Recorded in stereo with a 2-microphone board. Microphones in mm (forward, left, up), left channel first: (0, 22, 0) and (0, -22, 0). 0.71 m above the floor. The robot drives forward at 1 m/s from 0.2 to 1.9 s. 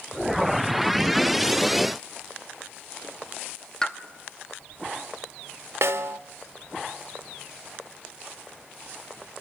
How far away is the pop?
About 0.9 m.